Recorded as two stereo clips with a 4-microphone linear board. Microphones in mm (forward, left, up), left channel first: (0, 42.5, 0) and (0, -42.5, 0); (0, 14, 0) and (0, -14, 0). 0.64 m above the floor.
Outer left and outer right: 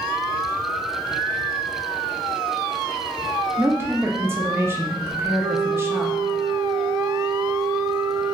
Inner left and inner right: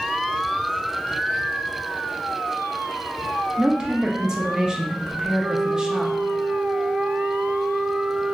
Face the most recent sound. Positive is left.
turn(degrees=-40)  # may be behind; listen again after turning